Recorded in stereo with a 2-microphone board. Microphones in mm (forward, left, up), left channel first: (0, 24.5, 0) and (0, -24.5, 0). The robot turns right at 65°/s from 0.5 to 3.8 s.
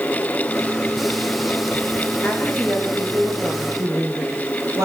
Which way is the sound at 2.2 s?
140° left.